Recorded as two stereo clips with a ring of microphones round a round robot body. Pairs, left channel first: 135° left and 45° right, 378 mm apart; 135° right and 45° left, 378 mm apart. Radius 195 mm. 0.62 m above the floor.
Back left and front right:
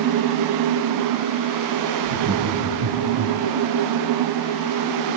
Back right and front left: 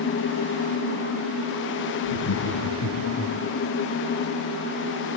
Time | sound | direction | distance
2.0 | laughter | 85° right | 3.5 m